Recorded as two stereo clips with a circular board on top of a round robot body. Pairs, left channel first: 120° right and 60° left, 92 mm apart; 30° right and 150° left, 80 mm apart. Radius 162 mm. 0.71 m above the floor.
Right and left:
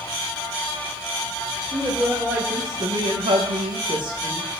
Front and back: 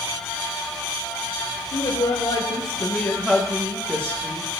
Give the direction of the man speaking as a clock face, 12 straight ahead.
1 o'clock.